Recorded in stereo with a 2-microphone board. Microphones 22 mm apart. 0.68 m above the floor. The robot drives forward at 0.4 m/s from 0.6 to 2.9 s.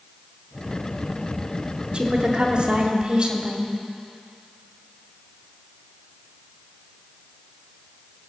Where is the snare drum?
I don't hear a snare drum.